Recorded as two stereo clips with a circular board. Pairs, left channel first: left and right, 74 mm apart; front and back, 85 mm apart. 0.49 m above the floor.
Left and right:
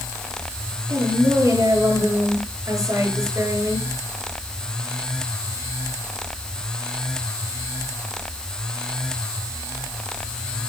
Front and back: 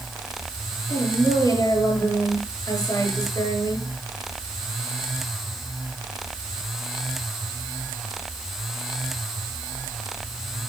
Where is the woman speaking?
45° right, 8 m.